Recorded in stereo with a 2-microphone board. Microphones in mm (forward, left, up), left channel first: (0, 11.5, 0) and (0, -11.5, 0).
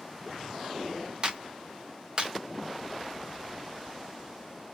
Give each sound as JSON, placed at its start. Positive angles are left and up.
{"t": 1.2, "sound": "a clap", "side_deg": -40, "distance_m": 1.9}